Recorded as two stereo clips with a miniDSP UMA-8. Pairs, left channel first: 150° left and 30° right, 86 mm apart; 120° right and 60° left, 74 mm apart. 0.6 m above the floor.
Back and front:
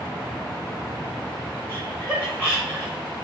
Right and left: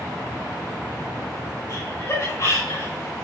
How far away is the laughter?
About 2.5 m.